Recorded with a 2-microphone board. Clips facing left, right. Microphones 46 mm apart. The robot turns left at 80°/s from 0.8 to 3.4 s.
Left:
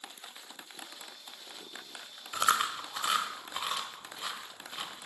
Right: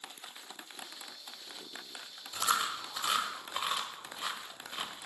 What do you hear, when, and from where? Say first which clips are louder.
2.3 s chewing: left 3 dB; 55° left (ahead or behind), 1.4 m; by 5.1 s 10° right (ahead or behind), 1.4 m